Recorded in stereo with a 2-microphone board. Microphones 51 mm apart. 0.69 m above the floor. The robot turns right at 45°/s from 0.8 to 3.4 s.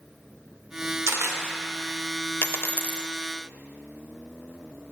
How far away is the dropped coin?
About 0.6 m.